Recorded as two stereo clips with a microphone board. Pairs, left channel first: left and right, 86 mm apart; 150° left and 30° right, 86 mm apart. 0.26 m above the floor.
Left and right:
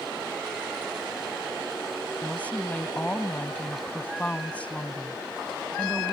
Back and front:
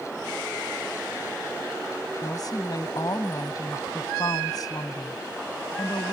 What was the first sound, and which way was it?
A woman speaking, 160° left.